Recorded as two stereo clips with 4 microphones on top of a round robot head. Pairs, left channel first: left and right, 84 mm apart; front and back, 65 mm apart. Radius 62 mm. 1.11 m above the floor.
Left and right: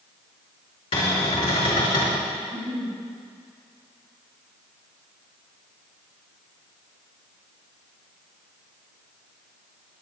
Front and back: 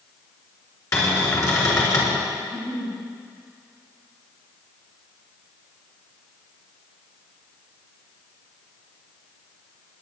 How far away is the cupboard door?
About 5 m.